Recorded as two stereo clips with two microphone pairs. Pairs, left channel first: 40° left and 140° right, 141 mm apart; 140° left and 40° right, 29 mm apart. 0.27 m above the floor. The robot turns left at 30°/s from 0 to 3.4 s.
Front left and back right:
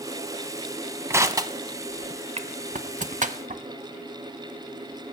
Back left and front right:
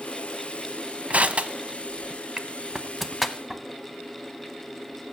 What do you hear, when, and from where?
1.1 s crushing: 70° right, 0.7 m; by 3.6 s 135° right, 0.7 m